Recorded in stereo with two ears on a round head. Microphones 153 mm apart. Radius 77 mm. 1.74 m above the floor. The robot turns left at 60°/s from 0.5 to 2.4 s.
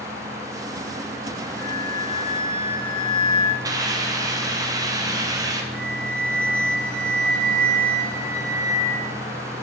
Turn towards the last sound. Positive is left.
turn(degrees=10)  # may be behind; listen again after turning